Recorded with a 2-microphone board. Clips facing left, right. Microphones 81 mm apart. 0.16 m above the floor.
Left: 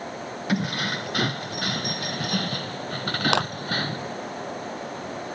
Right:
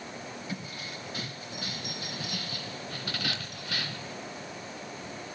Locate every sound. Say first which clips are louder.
0.5 s keys jangling: left 13 dB; 70° left (ahead or behind); by 4.2 s 40° left (ahead or behind)
3.3 s a clap: left 18 dB; 75° left (ahead or behind)